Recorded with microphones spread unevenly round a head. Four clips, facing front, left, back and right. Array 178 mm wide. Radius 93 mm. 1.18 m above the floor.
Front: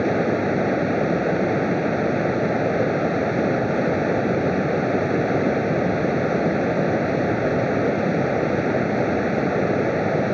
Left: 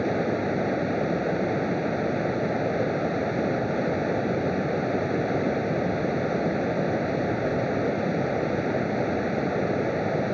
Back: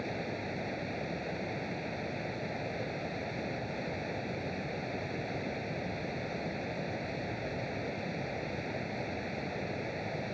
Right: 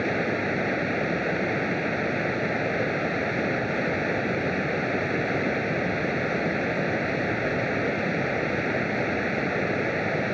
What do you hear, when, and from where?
0.0 s running water: 10° left